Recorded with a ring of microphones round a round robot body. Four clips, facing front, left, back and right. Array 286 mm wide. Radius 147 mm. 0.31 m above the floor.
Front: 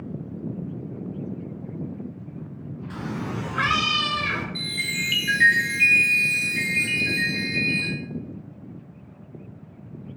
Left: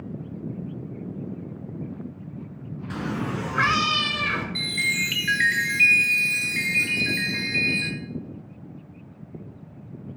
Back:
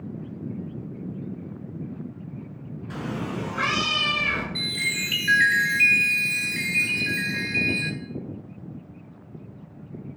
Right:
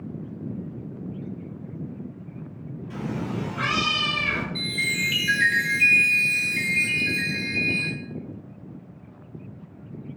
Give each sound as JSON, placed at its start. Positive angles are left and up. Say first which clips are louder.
{"t": 2.9, "sound": "a cat meowing", "louder": "left 1 dB, back 1 dB", "azimuth_deg": 90, "distance_m": 1.2}
{"t": 4.5, "sound": "a chime", "louder": "even, even", "azimuth_deg": 95, "distance_m": 1.9}